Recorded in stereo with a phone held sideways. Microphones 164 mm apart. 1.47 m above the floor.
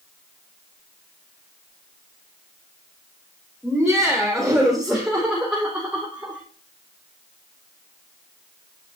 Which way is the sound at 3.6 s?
Centre (ahead or behind).